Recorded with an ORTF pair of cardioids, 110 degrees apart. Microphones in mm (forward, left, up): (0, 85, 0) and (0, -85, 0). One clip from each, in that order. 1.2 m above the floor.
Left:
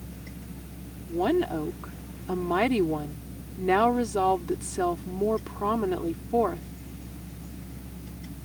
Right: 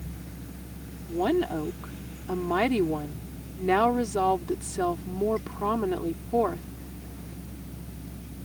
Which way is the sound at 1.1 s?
5° left.